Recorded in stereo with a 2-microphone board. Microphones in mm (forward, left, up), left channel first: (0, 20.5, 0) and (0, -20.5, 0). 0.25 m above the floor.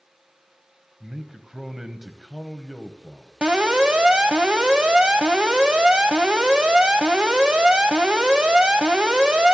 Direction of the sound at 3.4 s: 25° right (ahead or behind).